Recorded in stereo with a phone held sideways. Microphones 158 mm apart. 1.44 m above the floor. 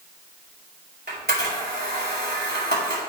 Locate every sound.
1.1 s a camera shutter: 90° right, 4.5 m